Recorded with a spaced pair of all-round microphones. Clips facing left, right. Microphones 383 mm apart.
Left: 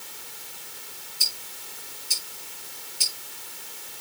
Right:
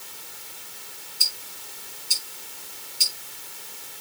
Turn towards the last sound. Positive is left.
turn(degrees=-10)  # may be behind; listen again after turning